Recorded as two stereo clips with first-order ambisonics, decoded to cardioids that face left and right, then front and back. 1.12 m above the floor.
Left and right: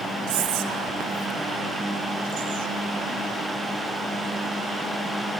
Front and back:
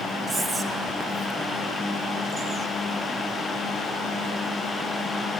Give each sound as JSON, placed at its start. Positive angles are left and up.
{"t": 0.3, "sound": "whispering", "azimuth_deg": -100, "distance_m": 0.5}